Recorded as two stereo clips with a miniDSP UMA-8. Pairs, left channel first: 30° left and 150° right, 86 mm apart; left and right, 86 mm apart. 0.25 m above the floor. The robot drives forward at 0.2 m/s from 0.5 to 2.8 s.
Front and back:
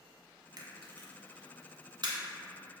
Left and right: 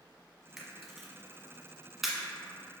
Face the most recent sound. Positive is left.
turn(degrees=-175)